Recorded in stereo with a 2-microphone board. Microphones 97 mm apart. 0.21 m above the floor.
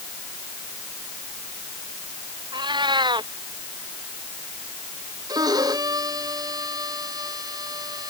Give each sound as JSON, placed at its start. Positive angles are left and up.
{"t": 2.5, "sound": "a cat meowing", "side_deg": -50}
{"t": 5.3, "sound": "a violin", "side_deg": -40}